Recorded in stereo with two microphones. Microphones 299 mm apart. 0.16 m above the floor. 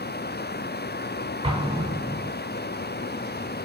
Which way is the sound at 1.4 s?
15° right (ahead or behind).